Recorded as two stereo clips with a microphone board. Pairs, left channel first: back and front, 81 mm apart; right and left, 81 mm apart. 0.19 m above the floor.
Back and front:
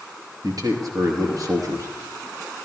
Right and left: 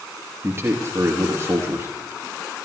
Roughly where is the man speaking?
Ahead left.